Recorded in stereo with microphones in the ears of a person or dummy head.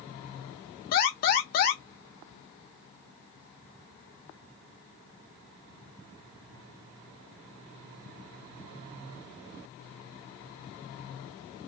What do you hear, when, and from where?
0.9 s an alarm: 50° left (ahead or behind), 1.0 m